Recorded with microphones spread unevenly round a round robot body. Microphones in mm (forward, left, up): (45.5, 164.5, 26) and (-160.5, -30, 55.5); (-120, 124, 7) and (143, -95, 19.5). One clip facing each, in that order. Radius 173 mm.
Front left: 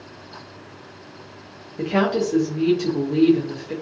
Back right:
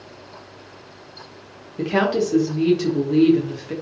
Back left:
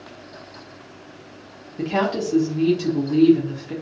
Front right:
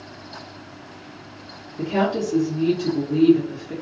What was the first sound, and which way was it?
A woman speaking, 155° left.